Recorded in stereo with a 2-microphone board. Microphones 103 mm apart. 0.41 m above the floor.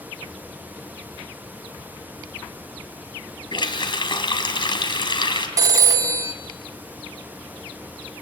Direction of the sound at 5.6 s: 35° right (ahead or behind).